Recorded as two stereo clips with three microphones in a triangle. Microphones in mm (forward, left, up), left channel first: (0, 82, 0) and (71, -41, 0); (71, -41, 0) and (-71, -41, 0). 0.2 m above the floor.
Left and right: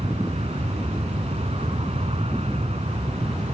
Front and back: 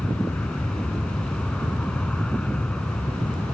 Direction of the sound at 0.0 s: 80° right.